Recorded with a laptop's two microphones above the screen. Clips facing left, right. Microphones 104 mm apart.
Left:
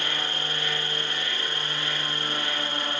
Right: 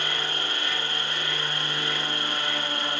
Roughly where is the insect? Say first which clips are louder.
Right 1 dB; right.